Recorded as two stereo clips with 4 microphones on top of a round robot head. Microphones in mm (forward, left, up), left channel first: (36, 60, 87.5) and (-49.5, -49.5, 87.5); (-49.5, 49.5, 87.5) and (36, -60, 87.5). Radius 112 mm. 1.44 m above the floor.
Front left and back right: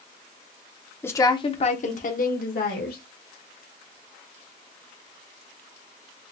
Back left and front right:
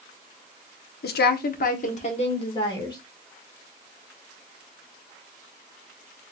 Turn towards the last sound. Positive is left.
turn(degrees=65)